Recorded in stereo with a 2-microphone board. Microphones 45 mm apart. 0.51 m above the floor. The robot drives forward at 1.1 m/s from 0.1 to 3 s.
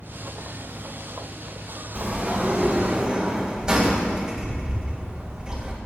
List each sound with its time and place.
1.9 s a sliding door: 25° right (ahead or behind), 2 m; by 5.7 s 15° right (ahead or behind), 3 m